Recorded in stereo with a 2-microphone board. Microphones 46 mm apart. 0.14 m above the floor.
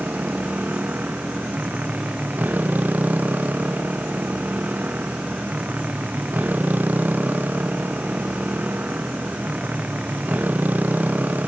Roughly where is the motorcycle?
Right.